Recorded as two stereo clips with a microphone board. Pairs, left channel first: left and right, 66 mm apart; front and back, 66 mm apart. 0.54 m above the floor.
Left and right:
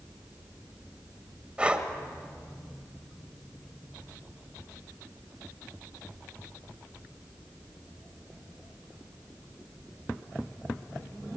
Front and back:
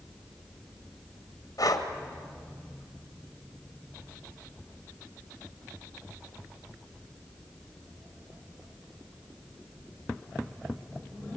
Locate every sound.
1.6 s breathing: 15° right, 1.9 m